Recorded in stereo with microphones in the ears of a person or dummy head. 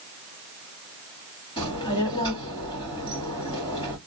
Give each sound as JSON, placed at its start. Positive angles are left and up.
{"t": 1.6, "sound": "a child speaking", "side_deg": 25, "distance_m": 2.0}